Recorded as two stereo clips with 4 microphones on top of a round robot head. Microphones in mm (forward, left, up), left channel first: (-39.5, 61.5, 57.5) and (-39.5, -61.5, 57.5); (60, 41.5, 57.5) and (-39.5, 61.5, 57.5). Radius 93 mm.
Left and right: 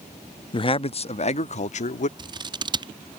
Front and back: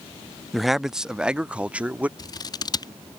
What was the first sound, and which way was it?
A man speaking, 80° left.